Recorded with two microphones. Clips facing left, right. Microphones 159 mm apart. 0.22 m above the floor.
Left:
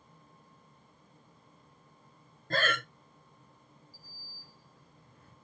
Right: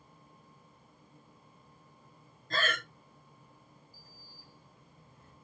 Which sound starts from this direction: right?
A sliding door, at 3.9 s.